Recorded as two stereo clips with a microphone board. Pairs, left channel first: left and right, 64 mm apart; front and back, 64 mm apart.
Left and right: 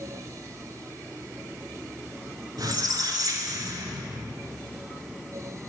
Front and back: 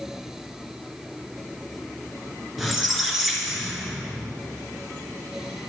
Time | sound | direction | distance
2.6 | a squeak | 90° right | 0.9 m